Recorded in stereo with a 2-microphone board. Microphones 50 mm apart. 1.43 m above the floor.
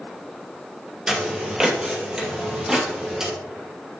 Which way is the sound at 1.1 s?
15° right (ahead or behind).